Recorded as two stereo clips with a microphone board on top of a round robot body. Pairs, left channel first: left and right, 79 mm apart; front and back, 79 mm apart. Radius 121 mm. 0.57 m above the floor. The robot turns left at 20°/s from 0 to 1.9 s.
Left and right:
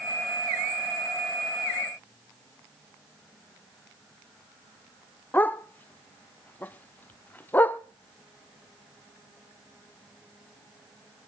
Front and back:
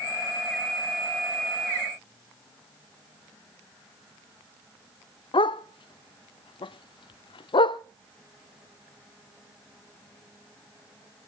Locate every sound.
5.3 s a dog barking: 20° left, 0.6 m